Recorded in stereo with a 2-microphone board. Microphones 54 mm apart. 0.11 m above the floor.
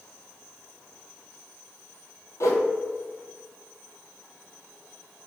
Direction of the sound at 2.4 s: 75° left (ahead or behind).